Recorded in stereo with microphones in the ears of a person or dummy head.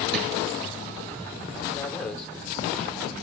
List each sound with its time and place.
0.1 s a drawer: 65° right (ahead or behind), 7 m
1.7 s a man speaking: 5° left (ahead or behind), 4.5 m